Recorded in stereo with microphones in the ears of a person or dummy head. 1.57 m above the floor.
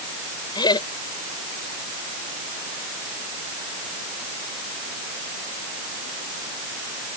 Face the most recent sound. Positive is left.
turn(degrees=20)  # may be behind; listen again after turning